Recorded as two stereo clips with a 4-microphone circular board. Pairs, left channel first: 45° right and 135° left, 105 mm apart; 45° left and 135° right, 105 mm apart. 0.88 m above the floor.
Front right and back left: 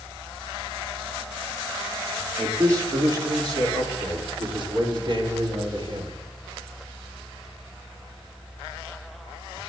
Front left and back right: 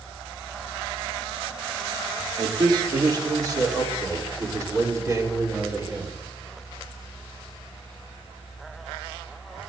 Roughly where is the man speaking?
Behind.